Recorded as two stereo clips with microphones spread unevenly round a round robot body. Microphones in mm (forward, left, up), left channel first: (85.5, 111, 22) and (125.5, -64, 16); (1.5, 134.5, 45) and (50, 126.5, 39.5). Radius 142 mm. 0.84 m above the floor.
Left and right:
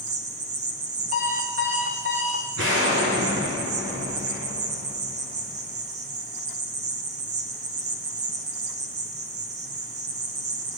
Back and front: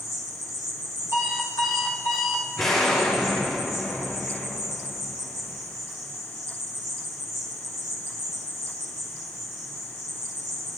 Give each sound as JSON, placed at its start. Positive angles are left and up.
{"t": 0.0, "sound": "an insect", "azimuth_deg": -75, "distance_m": 0.8}
{"t": 1.1, "sound": "an alarm clock", "azimuth_deg": -140, "distance_m": 1.0}
{"t": 2.6, "sound": "an explosion", "azimuth_deg": -120, "distance_m": 1.3}